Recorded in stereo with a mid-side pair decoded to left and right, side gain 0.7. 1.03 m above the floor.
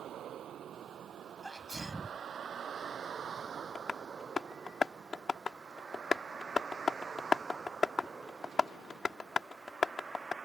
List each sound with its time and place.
0.0 s a vehicle: 45° right; by 10.4 s 20° right
1.4 s a sneeze: 15° right
3.8 s tapping: 20° left